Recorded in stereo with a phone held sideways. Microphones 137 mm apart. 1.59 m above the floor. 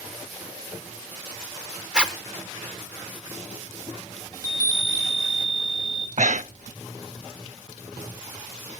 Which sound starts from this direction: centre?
A zipper, at 1.9 s.